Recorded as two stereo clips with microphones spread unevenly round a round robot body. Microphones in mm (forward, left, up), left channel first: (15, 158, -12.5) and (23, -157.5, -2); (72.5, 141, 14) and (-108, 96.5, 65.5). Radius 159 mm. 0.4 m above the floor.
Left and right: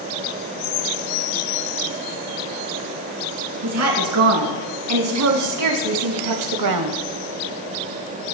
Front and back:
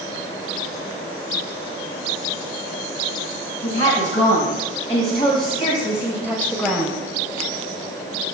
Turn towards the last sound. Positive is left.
turn(degrees=-75)